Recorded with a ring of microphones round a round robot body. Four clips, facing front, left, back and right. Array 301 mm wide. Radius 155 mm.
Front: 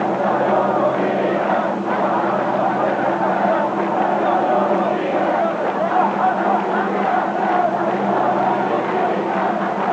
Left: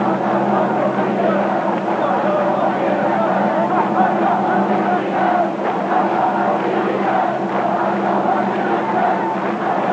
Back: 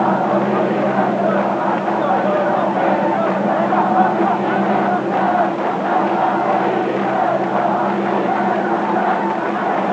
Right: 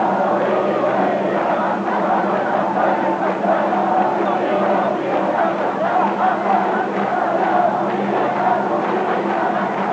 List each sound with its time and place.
Only background noise.